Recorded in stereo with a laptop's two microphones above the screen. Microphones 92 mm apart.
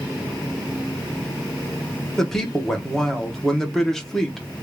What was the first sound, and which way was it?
A woman speaking, 5° left (ahead or behind).